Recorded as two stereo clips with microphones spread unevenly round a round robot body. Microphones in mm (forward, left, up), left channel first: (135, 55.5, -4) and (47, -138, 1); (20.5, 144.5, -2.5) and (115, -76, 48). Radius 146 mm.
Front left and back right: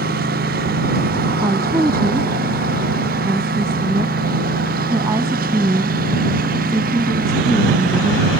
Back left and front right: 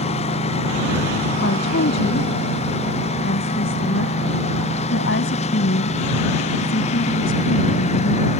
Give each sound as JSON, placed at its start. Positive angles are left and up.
{"t": 0.0, "sound": "a lawn mower", "azimuth_deg": -175}
{"t": 1.4, "sound": "a woman speaking", "azimuth_deg": 165}